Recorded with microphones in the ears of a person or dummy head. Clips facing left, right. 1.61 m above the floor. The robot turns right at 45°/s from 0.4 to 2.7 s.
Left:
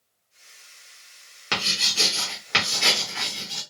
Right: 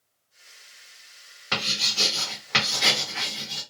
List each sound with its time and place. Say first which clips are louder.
1.5 s writing: left 1 dB; 50° left (ahead or behind), 1.3 m; by 3.6 s 5° left (ahead or behind), 1.3 m